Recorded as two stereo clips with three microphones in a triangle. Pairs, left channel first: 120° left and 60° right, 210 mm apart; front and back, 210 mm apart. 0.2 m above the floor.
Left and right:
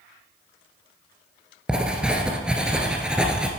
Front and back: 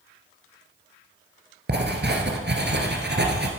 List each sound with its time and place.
1.7 s writing: 145° right, 1.8 m